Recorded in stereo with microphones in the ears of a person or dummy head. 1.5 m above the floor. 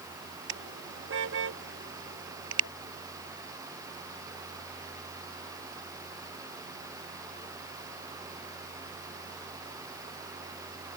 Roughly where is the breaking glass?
I don't hear breaking glass.